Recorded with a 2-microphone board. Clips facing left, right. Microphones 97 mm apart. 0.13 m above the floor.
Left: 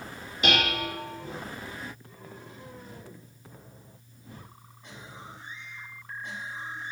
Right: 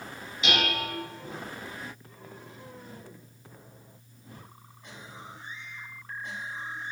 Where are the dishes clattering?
55° left (ahead or behind), 1.3 m.